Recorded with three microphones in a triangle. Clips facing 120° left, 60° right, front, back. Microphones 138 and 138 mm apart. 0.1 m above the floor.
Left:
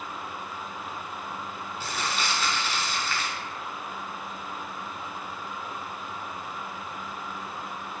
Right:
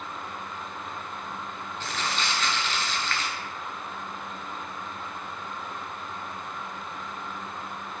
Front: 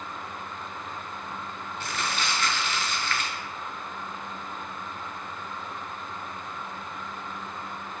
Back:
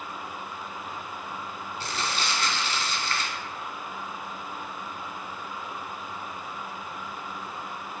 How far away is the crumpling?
About 0.6 m.